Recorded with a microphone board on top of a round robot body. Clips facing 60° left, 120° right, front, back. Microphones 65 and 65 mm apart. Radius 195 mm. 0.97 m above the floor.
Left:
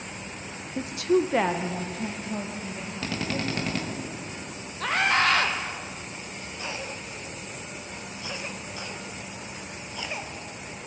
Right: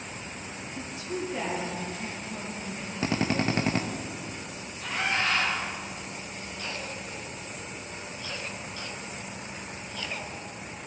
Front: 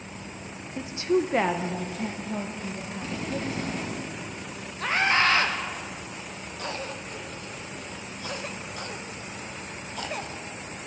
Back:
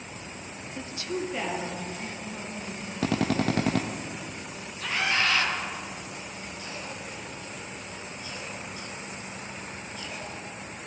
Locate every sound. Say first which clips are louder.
0.8 s a woman speaking: left 12 dB, front 8 dB; 80° left, 0.5 m; by 4.0 s 5° left, 2 m
3.0 s a drill: right 4 dB, back 7 dB; 175° left, 0.6 m
4.8 s a scream: left 6 dB, front 4 dB; 45° left, 1.8 m
6.6 s a cough: left 2 dB, front 7 dB; 15° right, 1.5 m